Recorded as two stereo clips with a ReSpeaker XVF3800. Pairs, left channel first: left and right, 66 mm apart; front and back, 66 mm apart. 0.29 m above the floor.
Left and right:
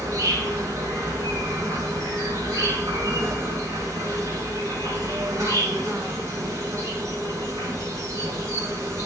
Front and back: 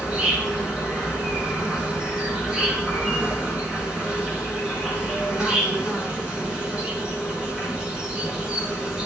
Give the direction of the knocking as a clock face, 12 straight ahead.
No knocking in this recording.